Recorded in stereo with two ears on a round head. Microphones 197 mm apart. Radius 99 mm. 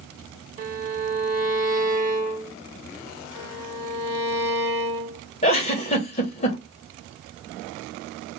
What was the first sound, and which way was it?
A violin, 40° right (ahead or behind).